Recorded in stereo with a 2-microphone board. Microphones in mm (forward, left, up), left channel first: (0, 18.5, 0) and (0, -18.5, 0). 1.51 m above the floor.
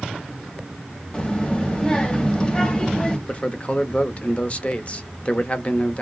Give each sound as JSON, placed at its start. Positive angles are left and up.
{"t": 1.1, "sound": "a child speaking", "side_deg": 25, "distance_m": 0.9}
{"t": 3.3, "sound": "a man speaking", "side_deg": 35, "distance_m": 0.6}